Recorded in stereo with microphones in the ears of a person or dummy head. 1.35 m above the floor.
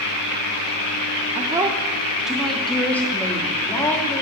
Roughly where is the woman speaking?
Right.